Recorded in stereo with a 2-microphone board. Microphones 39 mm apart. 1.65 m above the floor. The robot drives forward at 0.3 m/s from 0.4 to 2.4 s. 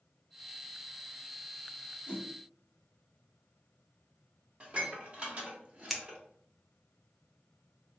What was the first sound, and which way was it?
A whoosh, 30° left (ahead or behind).